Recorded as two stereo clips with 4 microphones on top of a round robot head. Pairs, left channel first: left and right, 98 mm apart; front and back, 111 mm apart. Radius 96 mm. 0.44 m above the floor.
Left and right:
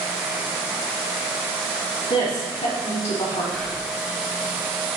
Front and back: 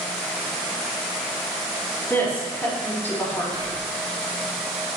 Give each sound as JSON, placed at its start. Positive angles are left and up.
{"t": 2.1, "sound": "a woman speaking", "azimuth_deg": 75, "distance_m": 3.5}
{"t": 3.5, "sound": "whispering", "azimuth_deg": 165, "distance_m": 1.5}